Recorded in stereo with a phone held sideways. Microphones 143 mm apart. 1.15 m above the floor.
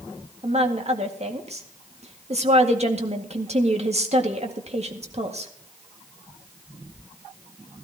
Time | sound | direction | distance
0.4 | a woman speaking | 50° right (ahead or behind) | 1.9 m